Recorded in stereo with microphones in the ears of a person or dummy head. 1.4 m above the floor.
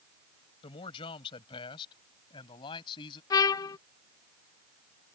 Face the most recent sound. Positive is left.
turn(degrees=20)  # may be behind; listen again after turning